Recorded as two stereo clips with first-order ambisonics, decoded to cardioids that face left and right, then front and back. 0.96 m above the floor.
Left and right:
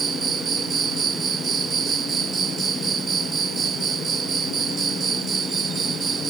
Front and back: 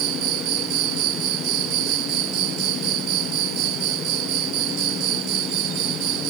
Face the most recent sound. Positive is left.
turn(degrees=-155)